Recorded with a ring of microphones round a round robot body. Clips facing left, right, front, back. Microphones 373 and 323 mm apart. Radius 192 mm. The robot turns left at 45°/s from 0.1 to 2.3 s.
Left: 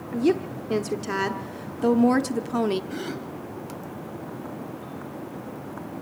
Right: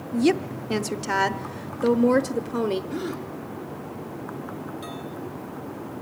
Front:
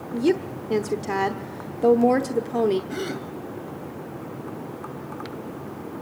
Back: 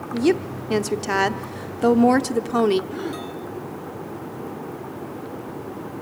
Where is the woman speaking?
115° right, 0.8 m; by 2.8 s 145° left, 0.8 m.